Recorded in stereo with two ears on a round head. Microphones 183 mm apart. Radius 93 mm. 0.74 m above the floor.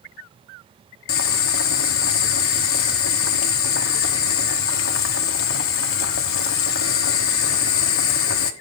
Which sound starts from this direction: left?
Boiling, at 1.1 s.